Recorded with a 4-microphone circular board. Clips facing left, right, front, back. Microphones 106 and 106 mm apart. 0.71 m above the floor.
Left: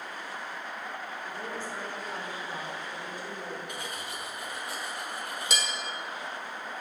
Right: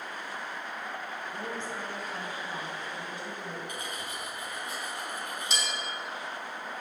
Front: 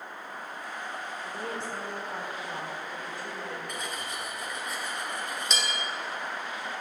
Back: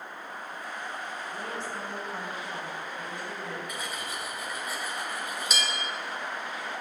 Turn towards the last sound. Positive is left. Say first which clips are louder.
# even, even
turn(degrees=95)